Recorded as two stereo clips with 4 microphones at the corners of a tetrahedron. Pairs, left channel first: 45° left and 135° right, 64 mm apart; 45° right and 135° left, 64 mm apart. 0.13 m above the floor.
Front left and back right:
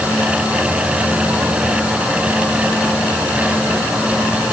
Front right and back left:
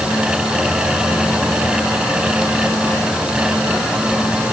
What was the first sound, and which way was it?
Only background noise.